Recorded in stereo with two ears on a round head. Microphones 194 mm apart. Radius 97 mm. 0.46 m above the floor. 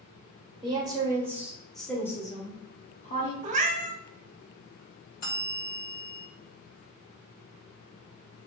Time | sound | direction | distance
0.6 | a woman speaking | 20° right (ahead or behind) | 1.2 m
3.4 | a cat meowing | 35° right (ahead or behind) | 0.6 m
5.2 | a bell | 45° left (ahead or behind) | 1.9 m